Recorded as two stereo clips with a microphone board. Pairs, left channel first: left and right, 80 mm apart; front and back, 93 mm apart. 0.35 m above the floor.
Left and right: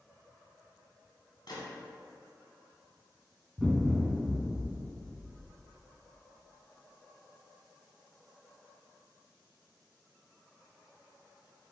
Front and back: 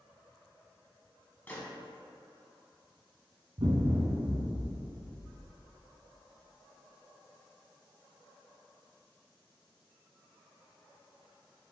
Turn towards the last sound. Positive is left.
turn(degrees=-175)